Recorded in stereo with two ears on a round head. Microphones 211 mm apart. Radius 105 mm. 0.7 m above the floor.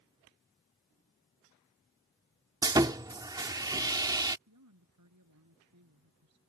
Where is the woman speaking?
85° right.